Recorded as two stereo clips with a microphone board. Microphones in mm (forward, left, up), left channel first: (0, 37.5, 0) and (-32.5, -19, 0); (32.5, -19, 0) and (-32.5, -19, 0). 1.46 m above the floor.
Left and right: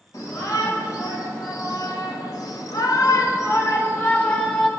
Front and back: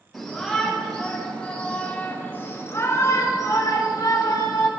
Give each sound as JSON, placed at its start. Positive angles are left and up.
{"t": 0.1, "sound": "a shout", "azimuth_deg": 90, "distance_m": 1.9}